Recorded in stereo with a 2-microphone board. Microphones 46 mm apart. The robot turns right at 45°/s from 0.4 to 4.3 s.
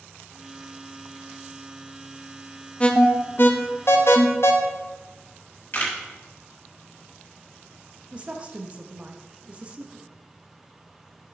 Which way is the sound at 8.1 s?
25° right (ahead or behind).